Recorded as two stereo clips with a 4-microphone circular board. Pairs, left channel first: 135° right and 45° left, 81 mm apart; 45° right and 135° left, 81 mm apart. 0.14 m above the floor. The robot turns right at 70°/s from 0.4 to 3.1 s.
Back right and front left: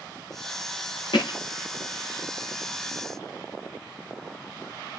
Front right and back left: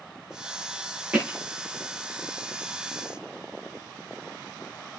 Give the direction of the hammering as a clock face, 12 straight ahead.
5 o'clock.